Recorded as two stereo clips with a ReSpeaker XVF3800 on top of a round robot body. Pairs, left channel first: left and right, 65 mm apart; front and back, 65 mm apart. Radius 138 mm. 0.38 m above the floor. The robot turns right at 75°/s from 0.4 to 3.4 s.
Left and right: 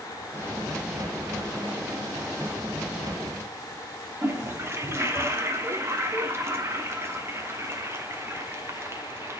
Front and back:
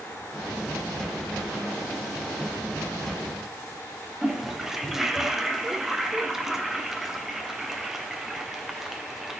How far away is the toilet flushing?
About 1.4 m.